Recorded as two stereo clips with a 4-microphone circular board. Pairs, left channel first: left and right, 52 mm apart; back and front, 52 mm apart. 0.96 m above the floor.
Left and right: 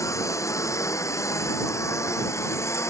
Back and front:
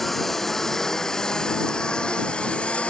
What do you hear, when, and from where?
0.0 s a lawn mower: 95° left; by 2.9 s 115° left